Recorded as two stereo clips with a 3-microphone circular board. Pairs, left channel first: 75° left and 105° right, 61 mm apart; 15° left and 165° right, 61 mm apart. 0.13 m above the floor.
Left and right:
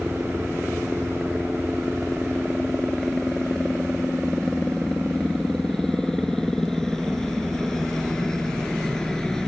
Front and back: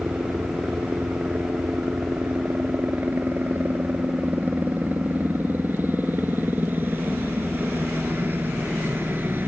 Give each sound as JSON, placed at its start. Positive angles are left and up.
{"t": 0.0, "sound": "a helicopter", "azimuth_deg": 155}